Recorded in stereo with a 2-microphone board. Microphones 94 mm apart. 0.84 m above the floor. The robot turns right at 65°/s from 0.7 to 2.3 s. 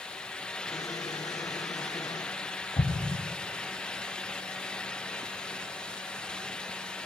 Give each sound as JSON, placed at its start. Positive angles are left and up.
{"t": 2.8, "sound": "an explosion", "side_deg": 65, "distance_m": 2.5}